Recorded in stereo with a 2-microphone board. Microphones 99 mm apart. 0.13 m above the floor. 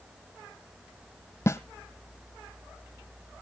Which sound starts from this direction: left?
A snare drum, at 1.5 s.